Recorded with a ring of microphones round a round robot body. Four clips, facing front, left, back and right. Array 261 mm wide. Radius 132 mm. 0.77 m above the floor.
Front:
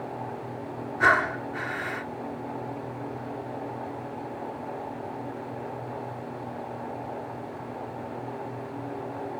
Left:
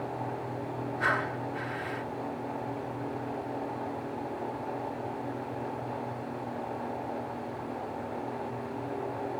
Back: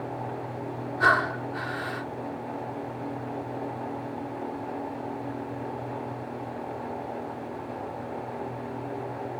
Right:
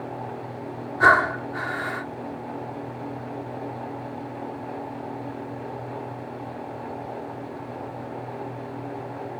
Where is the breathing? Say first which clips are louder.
Right 13 dB, even; 80° right.